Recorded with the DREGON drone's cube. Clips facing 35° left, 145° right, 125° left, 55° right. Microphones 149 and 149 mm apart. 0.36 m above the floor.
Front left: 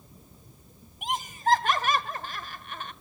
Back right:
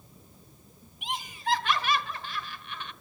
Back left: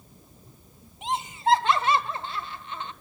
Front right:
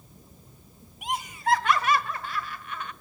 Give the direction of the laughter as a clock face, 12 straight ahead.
10 o'clock.